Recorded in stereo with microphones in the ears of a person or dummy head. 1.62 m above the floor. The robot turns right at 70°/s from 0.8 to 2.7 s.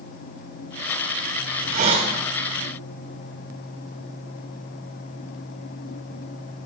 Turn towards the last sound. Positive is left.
turn(degrees=15)